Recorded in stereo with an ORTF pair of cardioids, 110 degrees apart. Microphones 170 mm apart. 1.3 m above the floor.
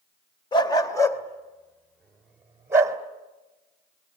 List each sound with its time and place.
0.5 s a dog barking: 30° left, 2.5 m; by 3.0 s 20° right, 2.5 m